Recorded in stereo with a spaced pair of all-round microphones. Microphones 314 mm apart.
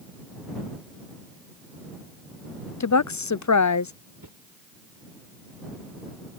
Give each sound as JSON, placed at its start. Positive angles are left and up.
{"t": 2.8, "sound": "a woman speaking", "side_deg": 60}
{"t": 4.2, "sound": "a whoosh", "side_deg": -75}